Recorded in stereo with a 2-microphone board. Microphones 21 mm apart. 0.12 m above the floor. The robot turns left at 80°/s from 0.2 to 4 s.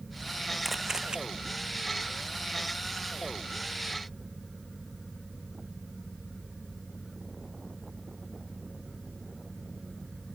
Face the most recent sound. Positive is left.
turn(degrees=95)